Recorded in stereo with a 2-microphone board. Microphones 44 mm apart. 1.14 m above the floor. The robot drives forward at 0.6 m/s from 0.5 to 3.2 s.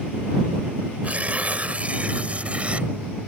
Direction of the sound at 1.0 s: 35° right (ahead or behind).